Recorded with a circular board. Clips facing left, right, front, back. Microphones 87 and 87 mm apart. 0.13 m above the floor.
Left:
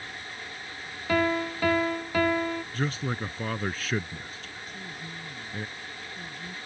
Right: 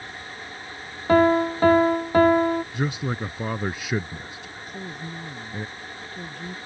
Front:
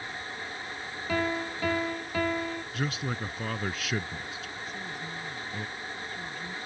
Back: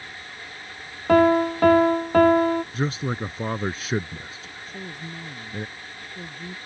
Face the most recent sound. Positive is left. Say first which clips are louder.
# right 7 dB, back 4 dB
turn(degrees=-125)